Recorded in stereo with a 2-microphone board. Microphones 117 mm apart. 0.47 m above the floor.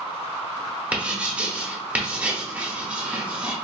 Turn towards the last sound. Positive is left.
turn(degrees=-15)  # may be behind; listen again after turning